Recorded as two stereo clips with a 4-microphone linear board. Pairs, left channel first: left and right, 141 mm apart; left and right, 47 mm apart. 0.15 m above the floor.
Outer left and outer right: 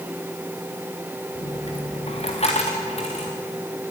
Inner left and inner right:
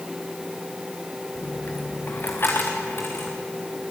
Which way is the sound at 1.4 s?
50° left (ahead or behind).